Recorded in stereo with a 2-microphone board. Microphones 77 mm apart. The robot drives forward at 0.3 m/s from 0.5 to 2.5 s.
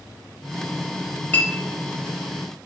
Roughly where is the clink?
Centre.